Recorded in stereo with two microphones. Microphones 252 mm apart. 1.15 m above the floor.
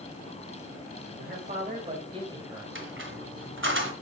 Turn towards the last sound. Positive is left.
turn(degrees=-50)  # may be behind; listen again after turning